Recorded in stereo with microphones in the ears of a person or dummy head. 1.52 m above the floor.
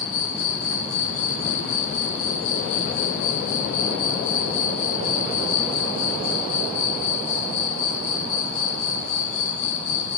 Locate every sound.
0.0 s an insect: 60° left (ahead or behind), 0.8 m